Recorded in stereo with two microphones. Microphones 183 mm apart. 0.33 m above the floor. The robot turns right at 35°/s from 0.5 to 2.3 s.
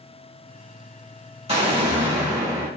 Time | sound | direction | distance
1.5 | an explosion | 35° right (ahead or behind) | 1.2 m